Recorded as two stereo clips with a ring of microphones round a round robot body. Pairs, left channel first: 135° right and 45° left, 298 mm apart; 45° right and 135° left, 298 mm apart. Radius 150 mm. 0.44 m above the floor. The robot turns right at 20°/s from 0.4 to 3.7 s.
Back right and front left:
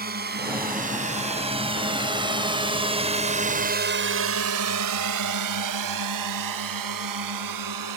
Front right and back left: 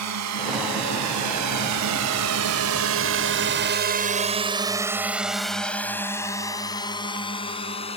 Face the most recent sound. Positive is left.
turn(degrees=25)